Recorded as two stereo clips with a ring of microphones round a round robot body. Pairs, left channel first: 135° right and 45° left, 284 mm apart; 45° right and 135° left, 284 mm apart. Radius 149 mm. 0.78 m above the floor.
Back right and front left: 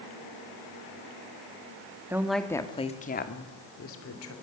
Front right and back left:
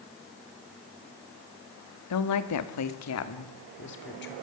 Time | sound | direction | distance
2.1 | a woman speaking | 35° right | 2 m